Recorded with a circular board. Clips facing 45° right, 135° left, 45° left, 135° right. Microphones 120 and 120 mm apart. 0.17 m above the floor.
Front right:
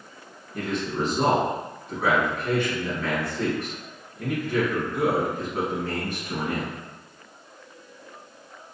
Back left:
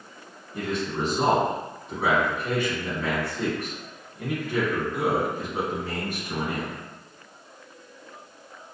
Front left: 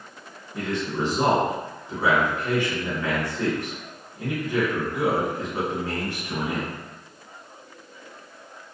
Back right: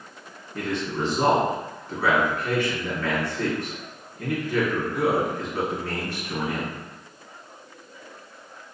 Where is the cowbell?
I don't hear a cowbell.